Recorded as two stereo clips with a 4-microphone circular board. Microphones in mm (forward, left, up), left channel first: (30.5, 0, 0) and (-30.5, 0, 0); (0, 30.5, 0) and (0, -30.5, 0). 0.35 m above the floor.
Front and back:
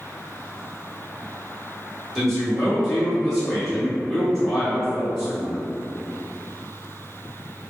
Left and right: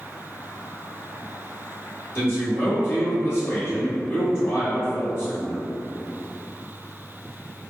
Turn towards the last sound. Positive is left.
turn(degrees=80)